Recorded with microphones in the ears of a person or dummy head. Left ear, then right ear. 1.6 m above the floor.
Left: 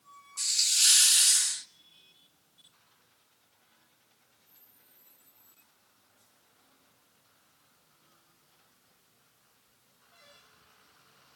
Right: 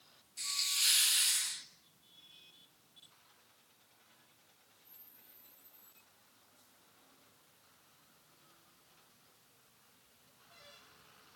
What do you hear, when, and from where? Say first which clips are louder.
0.4 s a hiss: left 8 dB; 15° left (ahead or behind), 1.2 m